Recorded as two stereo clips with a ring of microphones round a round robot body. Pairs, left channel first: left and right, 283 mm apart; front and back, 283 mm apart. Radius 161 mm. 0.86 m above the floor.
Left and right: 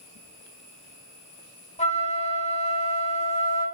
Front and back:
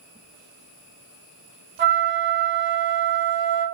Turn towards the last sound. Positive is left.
turn(degrees=145)